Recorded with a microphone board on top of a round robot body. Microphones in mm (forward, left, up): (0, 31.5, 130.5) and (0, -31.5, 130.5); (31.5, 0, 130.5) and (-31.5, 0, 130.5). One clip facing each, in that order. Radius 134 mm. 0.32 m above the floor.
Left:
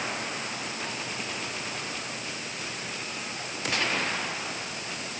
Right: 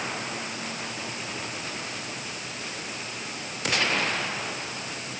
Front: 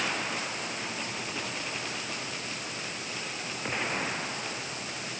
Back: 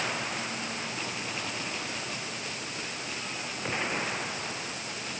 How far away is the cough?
I don't hear a cough.